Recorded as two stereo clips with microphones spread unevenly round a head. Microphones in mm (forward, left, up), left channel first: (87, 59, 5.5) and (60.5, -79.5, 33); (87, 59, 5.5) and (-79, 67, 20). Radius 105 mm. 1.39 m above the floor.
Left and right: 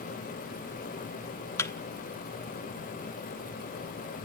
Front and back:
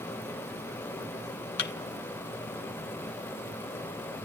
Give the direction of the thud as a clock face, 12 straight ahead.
12 o'clock.